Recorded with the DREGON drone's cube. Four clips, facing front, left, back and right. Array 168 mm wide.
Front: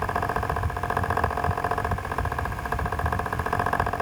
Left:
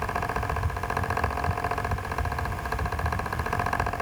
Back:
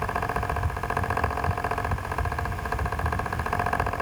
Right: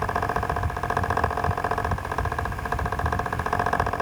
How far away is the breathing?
No breathing in this recording.